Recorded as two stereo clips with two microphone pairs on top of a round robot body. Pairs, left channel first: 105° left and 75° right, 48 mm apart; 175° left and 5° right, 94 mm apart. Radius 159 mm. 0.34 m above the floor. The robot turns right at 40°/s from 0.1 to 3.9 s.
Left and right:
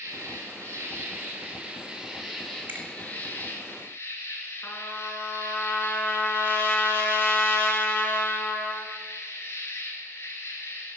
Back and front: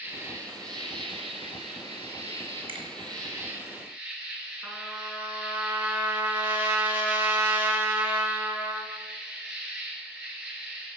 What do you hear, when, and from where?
0.0 s an insect: 75° right, 1.9 m; by 11.0 s 75° left, 1.9 m
2.7 s a finger snap: 25° right, 2.5 m; by 2.9 s 20° right, 2.5 m
4.6 s a trumpet: 65° left, 1.8 m